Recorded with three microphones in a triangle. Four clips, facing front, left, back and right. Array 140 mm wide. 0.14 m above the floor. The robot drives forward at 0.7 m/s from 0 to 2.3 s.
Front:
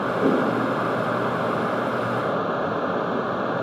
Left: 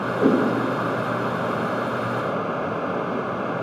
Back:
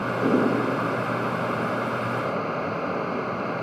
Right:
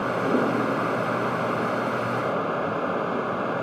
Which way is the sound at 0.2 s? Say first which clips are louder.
Left 7 dB, front 1 dB; 75° left.